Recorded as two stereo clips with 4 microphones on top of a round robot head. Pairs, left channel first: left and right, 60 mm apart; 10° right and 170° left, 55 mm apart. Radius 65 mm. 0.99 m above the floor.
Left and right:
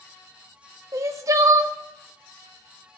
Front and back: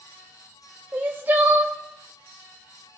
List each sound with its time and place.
0.9 s crying: 125° right, 0.7 m